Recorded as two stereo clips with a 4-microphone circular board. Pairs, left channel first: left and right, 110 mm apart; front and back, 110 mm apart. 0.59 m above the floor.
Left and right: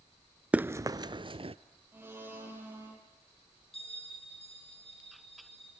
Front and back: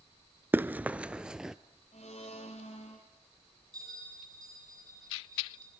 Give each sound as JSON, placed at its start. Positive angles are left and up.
{"t": 0.5, "sound": "running footsteps", "azimuth_deg": -145, "distance_m": 0.5}
{"t": 1.9, "sound": "a blender", "azimuth_deg": -20, "distance_m": 5.0}
{"t": 3.7, "sound": "a bell", "azimuth_deg": 125, "distance_m": 8.0}